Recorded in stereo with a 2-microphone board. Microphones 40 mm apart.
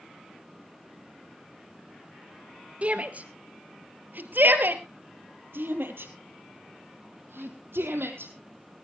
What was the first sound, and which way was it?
A shout, 35° right (ahead or behind).